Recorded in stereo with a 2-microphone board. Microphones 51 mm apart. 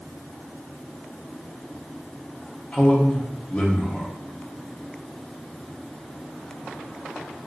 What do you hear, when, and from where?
2.7 s a man speaking: 25° left (ahead or behind), 0.7 m